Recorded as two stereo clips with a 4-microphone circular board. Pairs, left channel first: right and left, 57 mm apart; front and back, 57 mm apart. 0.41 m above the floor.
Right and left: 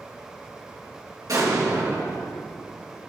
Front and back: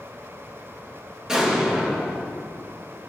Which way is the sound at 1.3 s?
100° left.